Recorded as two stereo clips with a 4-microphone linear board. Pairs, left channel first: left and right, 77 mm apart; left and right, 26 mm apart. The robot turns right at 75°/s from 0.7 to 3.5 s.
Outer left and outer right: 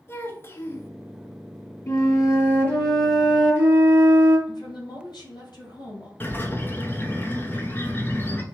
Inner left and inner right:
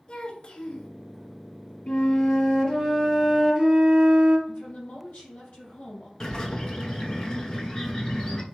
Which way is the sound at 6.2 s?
25° left (ahead or behind).